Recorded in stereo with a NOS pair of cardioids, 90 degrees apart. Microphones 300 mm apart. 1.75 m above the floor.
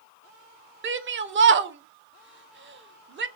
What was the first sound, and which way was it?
A shout, 40° right.